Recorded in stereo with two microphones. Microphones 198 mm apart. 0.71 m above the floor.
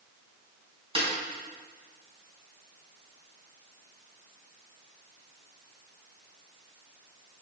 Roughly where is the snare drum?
Right.